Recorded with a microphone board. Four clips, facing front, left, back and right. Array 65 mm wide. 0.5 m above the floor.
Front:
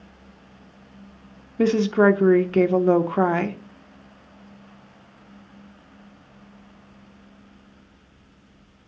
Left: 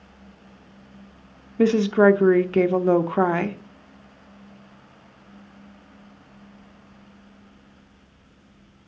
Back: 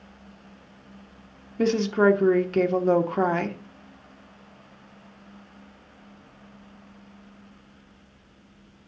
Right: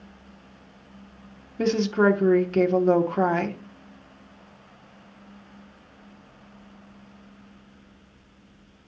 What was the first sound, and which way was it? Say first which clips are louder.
A woman speaking: left 4 dB, front 3 dB; 60° left.